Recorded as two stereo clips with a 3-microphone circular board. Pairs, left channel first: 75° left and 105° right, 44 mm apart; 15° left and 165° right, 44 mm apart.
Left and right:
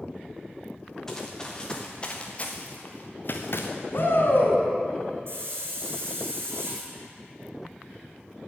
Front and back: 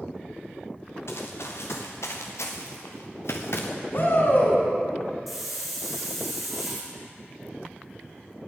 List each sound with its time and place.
1.1 s running footsteps: 5° right, 3 m; by 3.7 s 45° left, 2 m
3.9 s a shout: 45° left, 3.5 m
5.3 s a hiss: 75° right, 4 m